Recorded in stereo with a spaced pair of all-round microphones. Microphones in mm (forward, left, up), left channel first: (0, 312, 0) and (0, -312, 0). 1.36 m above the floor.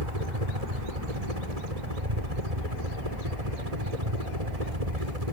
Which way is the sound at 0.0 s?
70° right (ahead or behind).